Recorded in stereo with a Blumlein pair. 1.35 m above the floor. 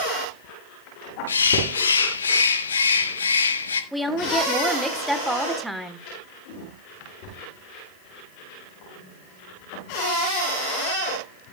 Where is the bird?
70° left, 1.1 m.